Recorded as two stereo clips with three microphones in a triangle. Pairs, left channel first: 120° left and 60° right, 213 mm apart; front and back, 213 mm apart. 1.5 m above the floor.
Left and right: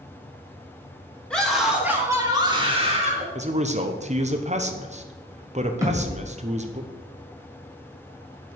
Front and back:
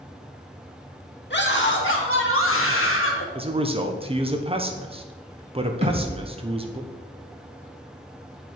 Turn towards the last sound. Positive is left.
turn(degrees=-130)